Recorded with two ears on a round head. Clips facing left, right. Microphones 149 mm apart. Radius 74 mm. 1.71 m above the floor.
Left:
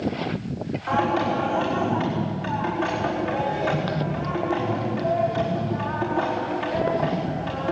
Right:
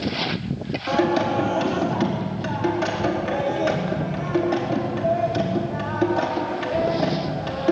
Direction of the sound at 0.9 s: 50° right (ahead or behind).